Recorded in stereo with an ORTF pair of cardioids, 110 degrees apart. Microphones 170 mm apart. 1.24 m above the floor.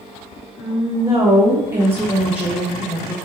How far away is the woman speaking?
About 2 m.